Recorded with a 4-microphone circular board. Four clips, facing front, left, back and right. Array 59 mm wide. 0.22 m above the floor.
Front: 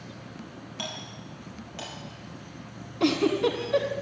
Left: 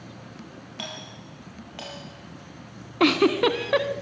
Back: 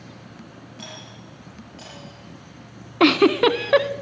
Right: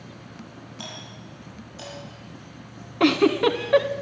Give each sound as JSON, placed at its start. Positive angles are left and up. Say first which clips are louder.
{"t": 0.8, "sound": "a doorbell", "louder": "left 2 dB, front 3 dB", "azimuth_deg": 70, "distance_m": 7.5}
{"t": 3.0, "sound": "a giggle", "louder": "right 1 dB, back 8 dB", "azimuth_deg": 175, "distance_m": 0.9}